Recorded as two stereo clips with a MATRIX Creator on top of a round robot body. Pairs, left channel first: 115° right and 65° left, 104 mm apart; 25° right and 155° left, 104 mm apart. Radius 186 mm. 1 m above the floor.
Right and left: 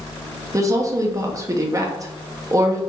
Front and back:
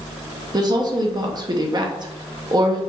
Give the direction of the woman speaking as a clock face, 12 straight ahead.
8 o'clock.